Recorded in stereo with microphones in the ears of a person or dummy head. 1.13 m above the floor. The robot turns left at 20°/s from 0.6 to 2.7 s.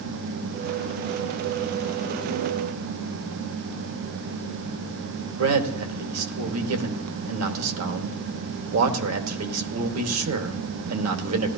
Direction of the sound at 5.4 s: 80° right.